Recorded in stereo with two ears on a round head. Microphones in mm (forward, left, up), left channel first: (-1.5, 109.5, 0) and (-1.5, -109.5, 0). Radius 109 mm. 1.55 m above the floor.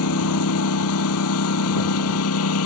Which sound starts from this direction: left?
A lawn mower, at 0.0 s.